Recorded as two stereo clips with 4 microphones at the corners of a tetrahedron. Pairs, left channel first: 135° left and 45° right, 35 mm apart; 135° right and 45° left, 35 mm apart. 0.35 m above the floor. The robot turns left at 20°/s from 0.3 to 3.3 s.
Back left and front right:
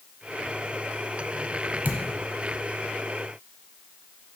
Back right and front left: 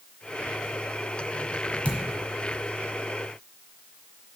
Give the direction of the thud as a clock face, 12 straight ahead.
3 o'clock.